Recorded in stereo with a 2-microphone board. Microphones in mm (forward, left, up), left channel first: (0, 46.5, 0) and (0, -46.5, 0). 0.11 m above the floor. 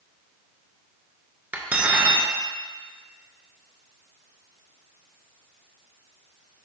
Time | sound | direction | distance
1.5 | cutlery clinking | 15° right (ahead or behind) | 0.8 m